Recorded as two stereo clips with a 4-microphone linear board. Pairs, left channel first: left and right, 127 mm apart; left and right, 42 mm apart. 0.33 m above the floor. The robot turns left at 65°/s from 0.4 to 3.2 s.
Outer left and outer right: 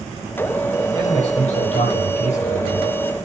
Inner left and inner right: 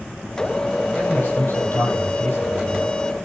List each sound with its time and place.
0.9 s a man speaking: 150° left, 8.5 m; by 2.9 s 25° left, 8.5 m